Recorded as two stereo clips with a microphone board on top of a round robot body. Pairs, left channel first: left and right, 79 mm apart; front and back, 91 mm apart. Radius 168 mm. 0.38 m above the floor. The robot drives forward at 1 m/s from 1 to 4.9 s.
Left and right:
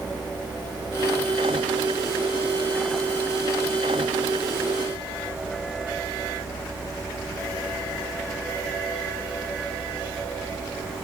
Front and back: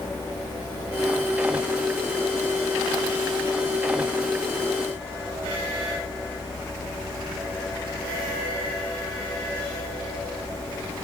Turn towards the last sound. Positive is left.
No sound to turn to.